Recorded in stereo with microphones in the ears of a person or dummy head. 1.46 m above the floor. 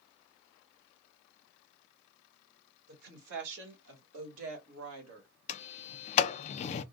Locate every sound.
2.9 s a woman speaking: 60° right (ahead or behind), 2 m; by 5.3 s 85° right, 2 m
5.5 s a sliding door: 35° left (ahead or behind), 0.6 m